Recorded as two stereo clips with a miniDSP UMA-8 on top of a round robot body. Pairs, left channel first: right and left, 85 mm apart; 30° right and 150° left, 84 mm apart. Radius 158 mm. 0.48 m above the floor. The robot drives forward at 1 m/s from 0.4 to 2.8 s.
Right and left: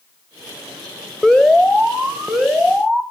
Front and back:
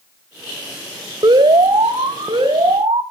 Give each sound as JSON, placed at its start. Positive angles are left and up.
{"t": 1.2, "sound": "an alarm", "azimuth_deg": -175, "distance_m": 2.0}